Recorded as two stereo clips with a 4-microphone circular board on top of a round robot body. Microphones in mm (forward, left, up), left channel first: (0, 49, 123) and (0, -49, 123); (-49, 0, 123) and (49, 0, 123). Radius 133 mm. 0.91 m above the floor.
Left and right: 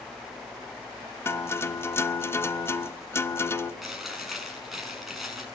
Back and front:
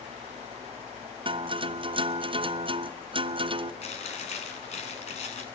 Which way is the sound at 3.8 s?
Straight behind.